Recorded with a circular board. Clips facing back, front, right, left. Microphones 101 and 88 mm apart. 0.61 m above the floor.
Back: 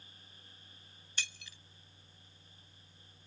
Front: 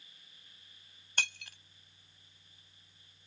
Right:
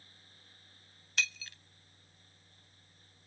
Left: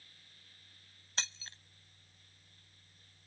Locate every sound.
1.2 s breaking glass: 30° left